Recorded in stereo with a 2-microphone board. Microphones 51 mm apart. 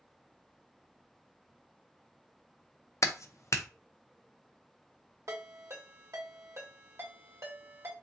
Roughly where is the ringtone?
Right.